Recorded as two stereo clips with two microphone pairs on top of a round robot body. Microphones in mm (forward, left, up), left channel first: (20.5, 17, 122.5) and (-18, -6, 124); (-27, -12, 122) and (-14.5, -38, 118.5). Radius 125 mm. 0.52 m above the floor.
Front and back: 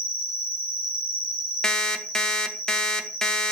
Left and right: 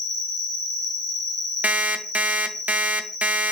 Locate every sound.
0.0 s an insect: 170° left, 3 m
1.6 s an alarm clock: 40° right, 0.5 m